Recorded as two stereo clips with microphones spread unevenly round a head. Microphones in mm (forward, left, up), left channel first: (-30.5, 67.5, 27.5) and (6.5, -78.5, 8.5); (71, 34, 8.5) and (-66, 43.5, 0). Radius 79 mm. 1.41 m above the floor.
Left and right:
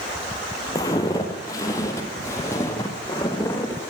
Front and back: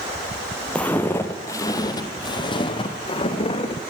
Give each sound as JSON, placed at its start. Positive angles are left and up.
{"t": 0.8, "sound": "footsteps", "azimuth_deg": 65, "distance_m": 1.6}